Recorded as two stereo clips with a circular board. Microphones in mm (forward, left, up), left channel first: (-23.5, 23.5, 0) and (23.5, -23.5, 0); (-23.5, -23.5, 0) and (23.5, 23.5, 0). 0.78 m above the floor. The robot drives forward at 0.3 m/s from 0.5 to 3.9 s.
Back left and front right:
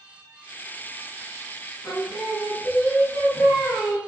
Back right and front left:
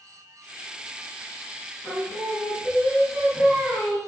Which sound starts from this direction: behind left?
Singing, at 1.8 s.